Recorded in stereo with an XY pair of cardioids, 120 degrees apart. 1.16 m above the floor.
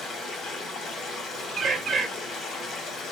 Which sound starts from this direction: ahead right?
A bird, at 1.6 s.